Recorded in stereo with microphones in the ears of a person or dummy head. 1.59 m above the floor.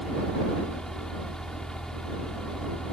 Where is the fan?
Centre (ahead or behind).